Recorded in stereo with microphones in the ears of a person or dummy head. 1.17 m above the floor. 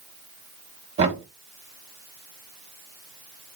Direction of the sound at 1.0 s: 35° right (ahead or behind).